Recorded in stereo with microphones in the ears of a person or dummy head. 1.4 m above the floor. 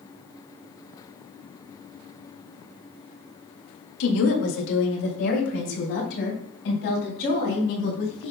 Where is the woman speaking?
80° left, 1.7 m; by 8.3 s 70° left (ahead or behind), 5 m.